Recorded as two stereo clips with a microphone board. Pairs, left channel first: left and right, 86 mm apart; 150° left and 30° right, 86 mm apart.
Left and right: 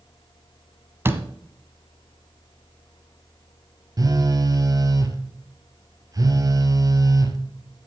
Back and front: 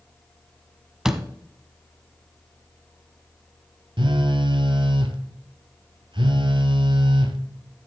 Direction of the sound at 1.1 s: 105° right.